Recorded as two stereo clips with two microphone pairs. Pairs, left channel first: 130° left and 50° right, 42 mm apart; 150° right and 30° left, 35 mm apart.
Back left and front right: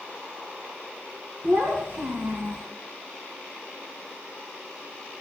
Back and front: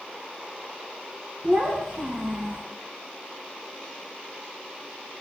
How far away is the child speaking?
About 3 m.